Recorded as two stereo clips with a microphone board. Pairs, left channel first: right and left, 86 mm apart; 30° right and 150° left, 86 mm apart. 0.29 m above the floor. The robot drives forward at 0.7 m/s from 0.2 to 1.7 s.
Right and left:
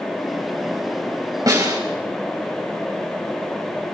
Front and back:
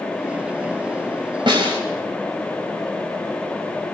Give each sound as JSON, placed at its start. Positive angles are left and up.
{"t": 1.5, "sound": "a snare drum", "azimuth_deg": 135, "distance_m": 6.0}